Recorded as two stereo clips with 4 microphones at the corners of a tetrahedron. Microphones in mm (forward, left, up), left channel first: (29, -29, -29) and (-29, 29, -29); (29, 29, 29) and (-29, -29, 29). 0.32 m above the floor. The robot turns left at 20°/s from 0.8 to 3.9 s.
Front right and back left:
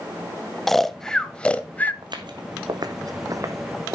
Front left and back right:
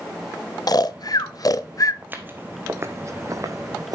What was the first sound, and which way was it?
Snoring, 40° left.